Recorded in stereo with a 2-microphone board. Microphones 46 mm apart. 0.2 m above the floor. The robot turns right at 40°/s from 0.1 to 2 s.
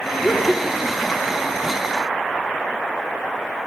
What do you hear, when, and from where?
0.2 s laughter: 15° left (ahead or behind), 6.5 m; by 1.1 s 20° right (ahead or behind), 6.5 m